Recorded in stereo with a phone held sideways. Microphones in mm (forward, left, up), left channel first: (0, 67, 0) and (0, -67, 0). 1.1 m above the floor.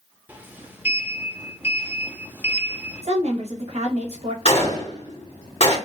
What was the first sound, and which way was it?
A sliding door, 15° right (ahead or behind).